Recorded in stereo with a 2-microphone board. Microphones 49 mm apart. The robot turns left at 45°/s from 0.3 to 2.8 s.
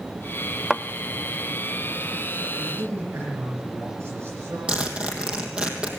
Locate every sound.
0.7 s a thud: 5° right (ahead or behind), 0.5 m; by 0.8 s 5° left (ahead or behind), 0.5 m
2.6 s a man speaking: 55° right (ahead or behind), 7.5 m; by 4.6 s 65° right (ahead or behind), 7.5 m
4.7 s a zipper: 20° right (ahead or behind), 3 m